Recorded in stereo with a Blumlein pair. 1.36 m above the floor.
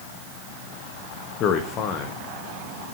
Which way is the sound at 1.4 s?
30° left.